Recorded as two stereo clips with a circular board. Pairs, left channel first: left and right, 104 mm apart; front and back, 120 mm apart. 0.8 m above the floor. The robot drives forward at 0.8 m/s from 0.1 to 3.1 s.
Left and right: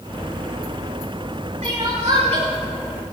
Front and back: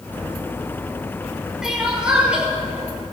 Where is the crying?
95° right, 7 m; by 2.5 s 100° right, 7 m.